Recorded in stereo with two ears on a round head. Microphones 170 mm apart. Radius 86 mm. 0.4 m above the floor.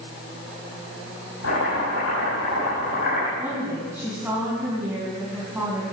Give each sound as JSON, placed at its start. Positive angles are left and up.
{"t": 1.4, "sound": "chopping", "side_deg": 80, "distance_m": 6.0}
{"t": 3.4, "sound": "a woman speaking", "side_deg": -10, "distance_m": 3.0}